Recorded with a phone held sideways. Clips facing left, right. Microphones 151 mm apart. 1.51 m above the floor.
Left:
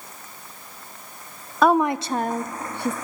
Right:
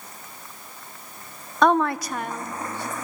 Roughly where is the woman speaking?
Centre.